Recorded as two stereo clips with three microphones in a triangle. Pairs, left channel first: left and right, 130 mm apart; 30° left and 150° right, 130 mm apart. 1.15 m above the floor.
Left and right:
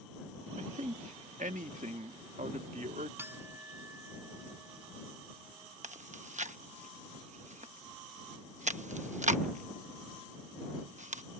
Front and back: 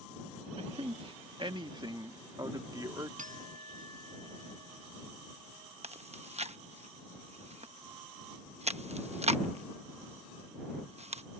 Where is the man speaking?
115° right; by 3.1 s 85° right.